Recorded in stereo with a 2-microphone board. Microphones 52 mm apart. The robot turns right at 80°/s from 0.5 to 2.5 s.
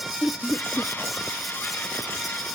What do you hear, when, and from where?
0.2 s laughter: 25° left (ahead or behind); by 0.9 s 40° left (ahead or behind)